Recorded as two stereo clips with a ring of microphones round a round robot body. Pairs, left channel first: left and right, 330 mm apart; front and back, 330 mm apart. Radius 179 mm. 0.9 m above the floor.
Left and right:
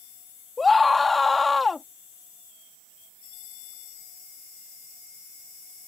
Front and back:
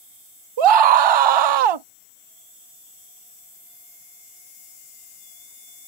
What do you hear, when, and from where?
0.6 s a scream: straight behind